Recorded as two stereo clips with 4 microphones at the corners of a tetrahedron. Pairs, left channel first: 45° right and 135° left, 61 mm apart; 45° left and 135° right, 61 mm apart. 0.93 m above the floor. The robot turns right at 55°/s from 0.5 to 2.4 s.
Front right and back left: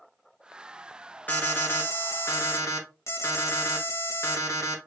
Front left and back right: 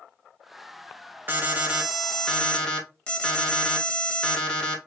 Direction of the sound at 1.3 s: 95° right.